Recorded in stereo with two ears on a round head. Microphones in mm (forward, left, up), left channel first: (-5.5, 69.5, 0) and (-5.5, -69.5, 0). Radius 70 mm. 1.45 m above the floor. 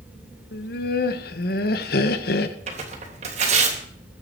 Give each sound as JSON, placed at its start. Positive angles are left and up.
{"t": 0.5, "sound": "laughter", "side_deg": 70, "distance_m": 1.3}
{"t": 2.7, "sound": "tearing paper", "side_deg": -45, "distance_m": 3.0}